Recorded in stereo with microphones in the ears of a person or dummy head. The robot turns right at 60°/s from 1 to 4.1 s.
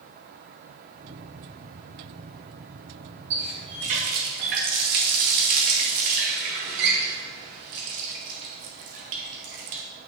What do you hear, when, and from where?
3.3 s a running tap: 15° right (ahead or behind), 1.0 m; by 9.8 s 40° right (ahead or behind), 1.0 m